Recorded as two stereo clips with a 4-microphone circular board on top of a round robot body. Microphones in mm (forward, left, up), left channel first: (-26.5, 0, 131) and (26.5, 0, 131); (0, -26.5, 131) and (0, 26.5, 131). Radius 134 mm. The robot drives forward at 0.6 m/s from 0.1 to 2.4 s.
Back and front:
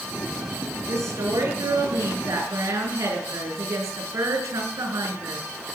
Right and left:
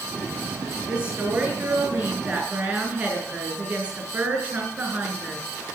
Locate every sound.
0.9 s a woman speaking: 20° left, 6.5 m; by 5.4 s 25° left, 5.5 m